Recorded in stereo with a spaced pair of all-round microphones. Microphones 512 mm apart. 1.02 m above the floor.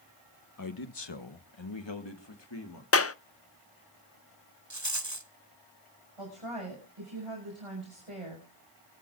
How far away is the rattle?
About 1.2 m.